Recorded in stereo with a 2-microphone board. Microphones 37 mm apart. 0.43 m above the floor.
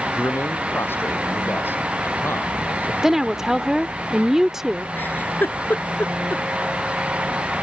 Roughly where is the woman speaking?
Centre.